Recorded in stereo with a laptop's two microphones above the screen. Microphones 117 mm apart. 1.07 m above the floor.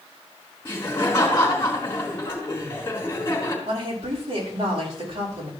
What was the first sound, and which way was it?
Laughter, 20° left (ahead or behind).